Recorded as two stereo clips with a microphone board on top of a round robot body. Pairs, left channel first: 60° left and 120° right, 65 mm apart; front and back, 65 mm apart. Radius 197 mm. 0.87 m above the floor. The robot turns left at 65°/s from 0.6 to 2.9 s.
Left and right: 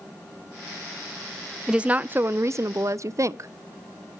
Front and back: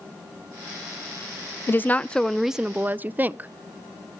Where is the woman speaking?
45° right, 0.5 m; by 3.5 s 125° right, 0.5 m.